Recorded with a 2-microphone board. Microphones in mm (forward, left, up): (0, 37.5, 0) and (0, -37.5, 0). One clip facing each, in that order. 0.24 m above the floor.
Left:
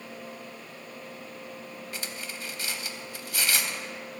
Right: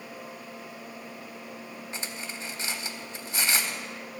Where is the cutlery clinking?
25° right (ahead or behind), 0.7 m.